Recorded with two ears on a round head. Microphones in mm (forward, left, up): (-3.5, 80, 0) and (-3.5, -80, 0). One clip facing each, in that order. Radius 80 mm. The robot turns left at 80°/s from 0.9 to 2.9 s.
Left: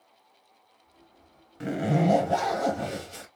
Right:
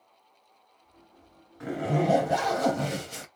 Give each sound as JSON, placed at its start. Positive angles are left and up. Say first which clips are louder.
{"t": 1.6, "sound": "a zipper", "louder": "left 2 dB", "azimuth_deg": 35, "distance_m": 0.9}